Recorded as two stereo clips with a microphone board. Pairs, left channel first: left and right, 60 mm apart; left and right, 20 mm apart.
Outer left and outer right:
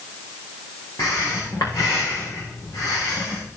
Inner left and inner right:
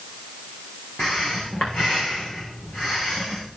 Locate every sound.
1.0 s breathing: 80° left, 4 m